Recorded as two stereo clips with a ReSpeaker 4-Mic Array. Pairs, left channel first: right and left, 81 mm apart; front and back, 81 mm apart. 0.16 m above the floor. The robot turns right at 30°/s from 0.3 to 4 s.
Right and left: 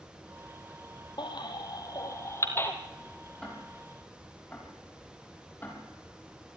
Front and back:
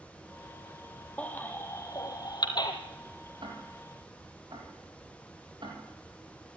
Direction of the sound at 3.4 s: 175° right.